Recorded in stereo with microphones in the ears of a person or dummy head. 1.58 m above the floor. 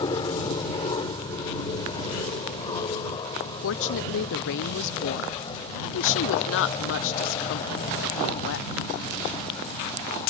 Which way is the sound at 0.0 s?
25° left (ahead or behind).